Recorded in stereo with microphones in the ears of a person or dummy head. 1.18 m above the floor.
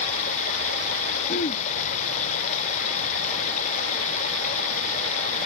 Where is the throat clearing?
45° left (ahead or behind).